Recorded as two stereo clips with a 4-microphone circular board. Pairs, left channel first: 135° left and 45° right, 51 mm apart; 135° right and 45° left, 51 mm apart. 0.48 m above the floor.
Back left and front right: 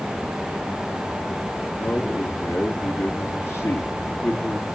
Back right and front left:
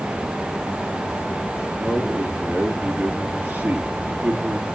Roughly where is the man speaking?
Left.